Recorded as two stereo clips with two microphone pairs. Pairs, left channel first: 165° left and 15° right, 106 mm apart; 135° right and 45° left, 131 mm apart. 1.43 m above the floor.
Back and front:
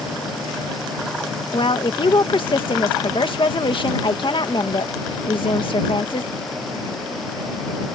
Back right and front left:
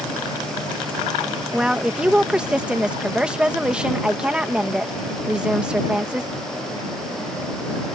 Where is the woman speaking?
130° left.